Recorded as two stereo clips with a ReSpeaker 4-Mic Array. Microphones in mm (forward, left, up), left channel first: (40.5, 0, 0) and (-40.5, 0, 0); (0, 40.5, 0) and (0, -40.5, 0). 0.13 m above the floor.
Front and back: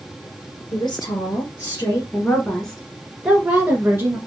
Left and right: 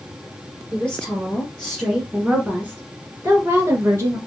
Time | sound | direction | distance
0.7 | a woman speaking | 10° left | 2.0 m